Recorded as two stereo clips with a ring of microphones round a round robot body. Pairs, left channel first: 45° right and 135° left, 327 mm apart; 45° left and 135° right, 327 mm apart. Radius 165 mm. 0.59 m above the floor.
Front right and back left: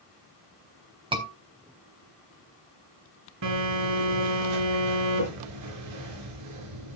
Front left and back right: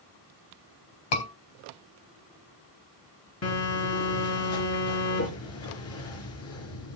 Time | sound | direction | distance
1.1 | a scream | 60° left | 4 m
3.4 | a phone buzzing | 95° left | 4.5 m